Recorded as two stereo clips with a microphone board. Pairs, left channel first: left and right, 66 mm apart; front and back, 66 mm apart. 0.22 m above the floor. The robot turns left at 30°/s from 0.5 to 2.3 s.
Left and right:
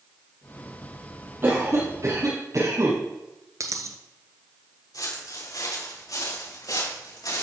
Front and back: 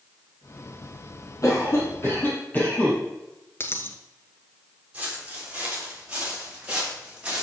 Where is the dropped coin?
55° right, 1.1 m.